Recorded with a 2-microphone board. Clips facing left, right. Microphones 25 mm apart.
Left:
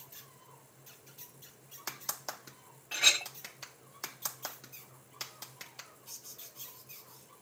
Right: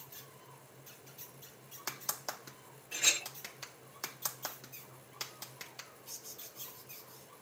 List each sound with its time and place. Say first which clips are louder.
2.9 s a clink: left 5 dB; 40° left (ahead or behind), 1.0 m